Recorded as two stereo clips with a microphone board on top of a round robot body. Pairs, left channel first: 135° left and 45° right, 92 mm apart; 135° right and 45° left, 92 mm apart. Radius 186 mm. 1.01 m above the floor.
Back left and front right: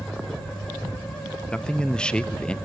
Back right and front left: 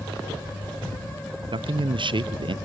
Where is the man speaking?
55° left, 0.8 m.